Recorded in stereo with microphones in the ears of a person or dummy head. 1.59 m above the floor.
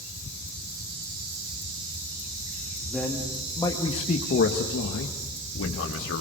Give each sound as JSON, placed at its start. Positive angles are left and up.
{"t": 2.9, "sound": "a man speaking", "side_deg": 5, "distance_m": 2.5}